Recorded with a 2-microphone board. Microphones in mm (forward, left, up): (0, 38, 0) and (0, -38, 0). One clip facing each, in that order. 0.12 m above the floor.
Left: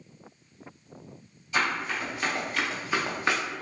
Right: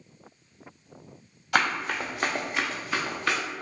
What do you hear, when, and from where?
1.5 s running footsteps: 70° right (ahead or behind), 1.0 m; by 3.4 s 25° left (ahead or behind), 1.0 m